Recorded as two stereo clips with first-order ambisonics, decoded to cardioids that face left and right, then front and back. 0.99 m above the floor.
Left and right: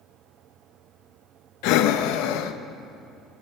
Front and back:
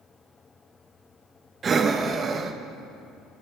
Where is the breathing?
110° left, 0.5 m.